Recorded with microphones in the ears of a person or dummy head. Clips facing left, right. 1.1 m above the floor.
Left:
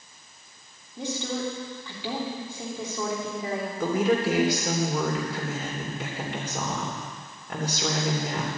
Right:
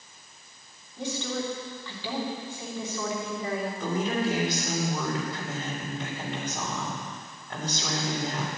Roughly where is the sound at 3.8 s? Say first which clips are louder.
Left 6 dB; left.